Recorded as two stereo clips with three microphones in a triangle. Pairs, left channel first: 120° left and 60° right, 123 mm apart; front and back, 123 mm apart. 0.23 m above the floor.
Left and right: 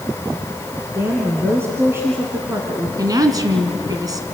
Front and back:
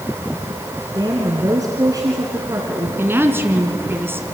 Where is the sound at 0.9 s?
125° right, 2.5 m.